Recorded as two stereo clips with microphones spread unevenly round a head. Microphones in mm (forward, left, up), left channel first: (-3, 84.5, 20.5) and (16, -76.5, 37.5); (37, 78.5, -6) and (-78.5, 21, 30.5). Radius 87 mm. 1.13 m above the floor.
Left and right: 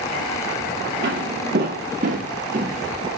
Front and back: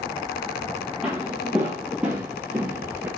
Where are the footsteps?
80° right, 2 m; by 3.1 s 110° right, 1.3 m.